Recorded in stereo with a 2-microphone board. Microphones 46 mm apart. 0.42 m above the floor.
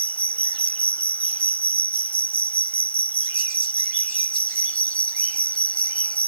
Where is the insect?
35° left (ahead or behind).